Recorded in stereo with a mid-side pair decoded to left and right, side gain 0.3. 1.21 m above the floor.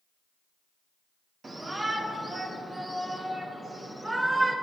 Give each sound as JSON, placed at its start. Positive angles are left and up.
{"t": 1.4, "sound": "a shout", "azimuth_deg": -45, "distance_m": 2.0}